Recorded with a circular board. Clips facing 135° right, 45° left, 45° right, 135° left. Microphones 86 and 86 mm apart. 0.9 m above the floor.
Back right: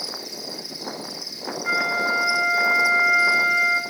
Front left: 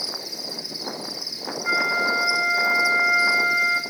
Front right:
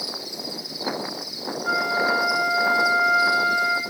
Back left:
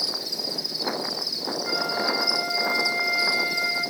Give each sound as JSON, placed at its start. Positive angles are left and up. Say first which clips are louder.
{"t": 0.0, "sound": "an insect", "louder": "even, even", "azimuth_deg": 135, "distance_m": 2.0}
{"t": 1.6, "sound": "a flute", "louder": "even, front right 6 dB", "azimuth_deg": -40, "distance_m": 4.5}